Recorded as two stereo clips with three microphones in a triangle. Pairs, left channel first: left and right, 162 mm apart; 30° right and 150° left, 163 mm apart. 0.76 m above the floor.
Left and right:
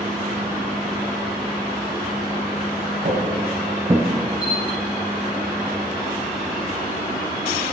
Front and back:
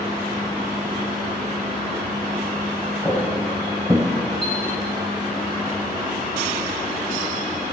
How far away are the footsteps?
About 1.7 m.